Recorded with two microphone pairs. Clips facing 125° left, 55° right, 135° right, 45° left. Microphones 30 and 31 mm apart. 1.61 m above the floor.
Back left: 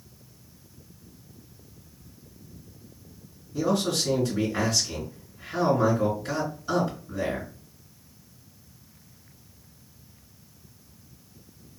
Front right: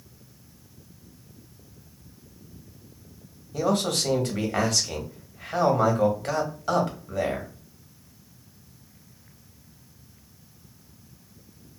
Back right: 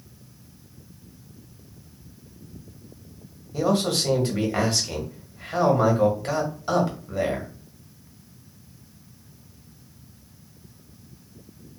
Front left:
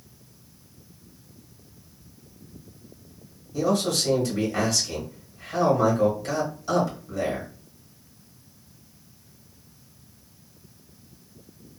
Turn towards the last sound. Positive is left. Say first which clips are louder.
# front right 1 dB, back right 1 dB
turn(degrees=-80)